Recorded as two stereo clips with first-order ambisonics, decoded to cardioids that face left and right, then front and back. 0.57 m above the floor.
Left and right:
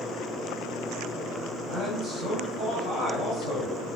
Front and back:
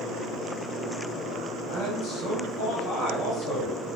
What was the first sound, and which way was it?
A man speaking, 5° right.